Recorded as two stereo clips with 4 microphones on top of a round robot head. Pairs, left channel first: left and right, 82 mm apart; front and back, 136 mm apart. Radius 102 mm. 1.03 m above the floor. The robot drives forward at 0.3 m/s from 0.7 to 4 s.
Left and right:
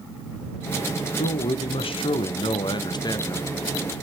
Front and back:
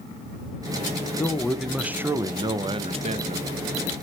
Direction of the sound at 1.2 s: 75° left.